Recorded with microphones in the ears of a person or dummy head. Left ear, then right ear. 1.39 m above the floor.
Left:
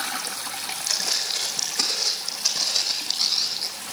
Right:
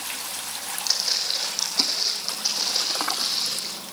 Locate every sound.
0.9 s footsteps: 30° right (ahead or behind), 5.5 m; by 3.7 s 15° left (ahead or behind), 5 m